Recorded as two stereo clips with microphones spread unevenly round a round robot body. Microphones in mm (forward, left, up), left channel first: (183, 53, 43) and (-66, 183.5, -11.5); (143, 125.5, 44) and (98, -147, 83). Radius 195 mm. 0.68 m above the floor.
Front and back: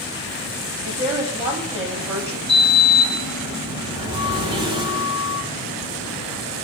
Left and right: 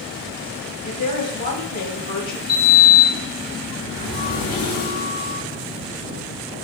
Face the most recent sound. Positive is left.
turn(degrees=80)